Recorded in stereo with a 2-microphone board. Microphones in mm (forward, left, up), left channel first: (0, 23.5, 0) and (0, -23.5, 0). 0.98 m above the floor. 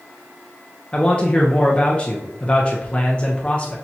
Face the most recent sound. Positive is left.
turn(degrees=25)  # may be behind; listen again after turning